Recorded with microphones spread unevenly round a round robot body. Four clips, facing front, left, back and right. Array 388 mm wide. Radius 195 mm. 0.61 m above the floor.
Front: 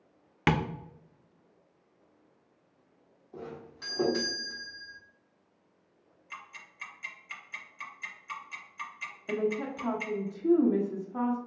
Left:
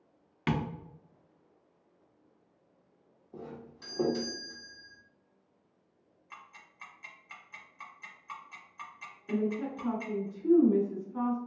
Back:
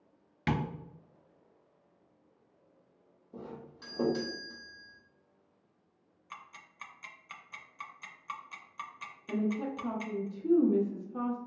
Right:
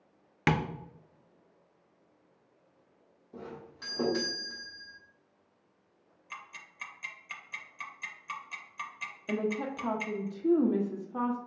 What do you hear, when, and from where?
0.5 s tapping: 50° right, 0.5 m
3.3 s a doorbell: 160° right, 1.2 m
6.3 s ticking: 120° right, 0.6 m
9.3 s a woman speaking: 95° right, 0.7 m